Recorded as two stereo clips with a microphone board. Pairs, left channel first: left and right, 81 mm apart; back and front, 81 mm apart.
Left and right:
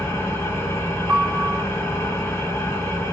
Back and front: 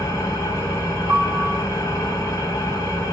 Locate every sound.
0.0 s an engine running: 135° left, 3.5 m
1.1 s a piano: 20° right, 0.8 m